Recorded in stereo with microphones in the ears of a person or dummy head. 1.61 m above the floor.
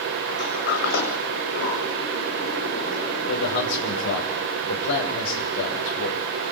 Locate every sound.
0.3 s a sliding door: 60° left (ahead or behind), 8 m
3.2 s a man speaking: 70° left (ahead or behind), 5.5 m